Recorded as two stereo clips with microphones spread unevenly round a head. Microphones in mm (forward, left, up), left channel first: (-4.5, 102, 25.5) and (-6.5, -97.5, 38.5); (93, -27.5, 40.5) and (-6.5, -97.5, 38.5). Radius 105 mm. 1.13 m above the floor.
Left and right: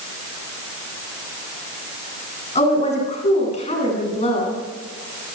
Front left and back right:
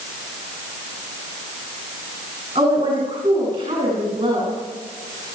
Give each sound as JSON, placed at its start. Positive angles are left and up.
{"t": 2.5, "sound": "a woman speaking", "azimuth_deg": 150, "distance_m": 10.0}